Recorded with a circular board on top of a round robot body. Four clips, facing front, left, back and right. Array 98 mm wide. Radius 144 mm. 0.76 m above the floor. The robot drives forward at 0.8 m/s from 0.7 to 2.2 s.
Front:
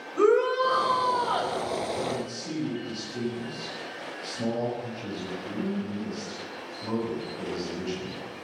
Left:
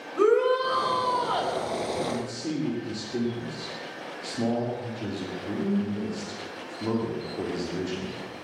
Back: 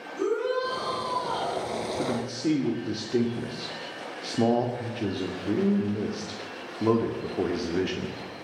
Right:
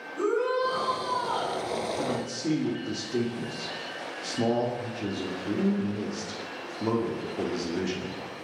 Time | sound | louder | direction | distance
0.2 | a shout | left 5 dB, front 5 dB | 45° left | 5 m
2.0 | a man speaking | even, back 3 dB | 170° right | 2.5 m